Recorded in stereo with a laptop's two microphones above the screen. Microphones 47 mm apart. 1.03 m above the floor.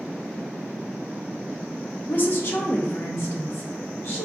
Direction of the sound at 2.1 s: 40° left (ahead or behind).